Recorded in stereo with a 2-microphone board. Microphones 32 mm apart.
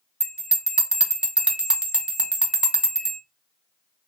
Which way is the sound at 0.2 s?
30° right (ahead or behind).